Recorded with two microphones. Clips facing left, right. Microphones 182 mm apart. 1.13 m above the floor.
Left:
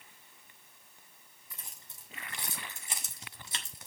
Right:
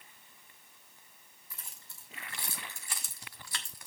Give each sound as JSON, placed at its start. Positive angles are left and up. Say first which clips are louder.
{"t": 1.5, "sound": "keys jangling", "louder": "left 1 dB", "side_deg": 20, "distance_m": 2.5}